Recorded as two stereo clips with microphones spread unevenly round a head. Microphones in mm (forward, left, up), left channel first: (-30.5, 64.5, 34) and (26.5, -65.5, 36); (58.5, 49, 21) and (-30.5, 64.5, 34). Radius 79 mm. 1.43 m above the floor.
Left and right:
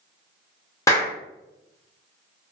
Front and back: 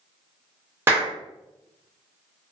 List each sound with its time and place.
0.9 s a clap: 170° left, 0.6 m